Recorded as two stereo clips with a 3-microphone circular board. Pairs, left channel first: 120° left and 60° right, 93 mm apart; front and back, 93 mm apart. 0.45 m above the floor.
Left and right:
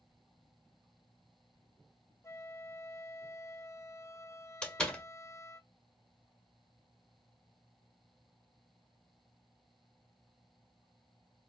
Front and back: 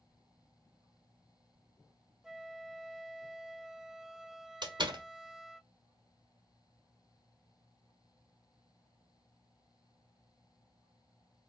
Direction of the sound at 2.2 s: 100° left.